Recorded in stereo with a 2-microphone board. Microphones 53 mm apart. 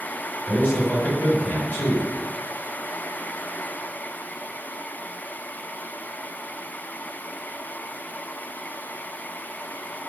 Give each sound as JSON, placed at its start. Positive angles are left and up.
{"t": 0.5, "sound": "a man speaking", "side_deg": 30, "distance_m": 1.8}